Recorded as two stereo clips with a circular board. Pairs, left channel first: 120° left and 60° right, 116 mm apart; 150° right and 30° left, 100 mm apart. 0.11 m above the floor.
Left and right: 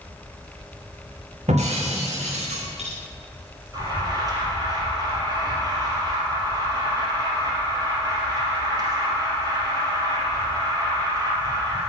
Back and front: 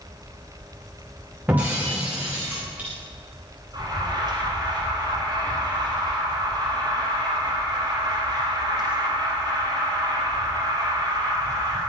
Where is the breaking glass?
45° right, 5.5 m.